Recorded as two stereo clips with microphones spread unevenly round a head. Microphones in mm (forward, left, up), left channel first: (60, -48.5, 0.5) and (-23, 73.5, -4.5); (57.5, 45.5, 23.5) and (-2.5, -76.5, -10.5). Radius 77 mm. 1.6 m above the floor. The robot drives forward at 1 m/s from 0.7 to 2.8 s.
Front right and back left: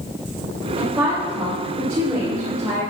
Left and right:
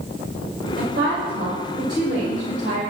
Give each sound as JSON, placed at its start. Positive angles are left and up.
{"t": 0.8, "sound": "a woman speaking", "azimuth_deg": -140, "distance_m": 6.0}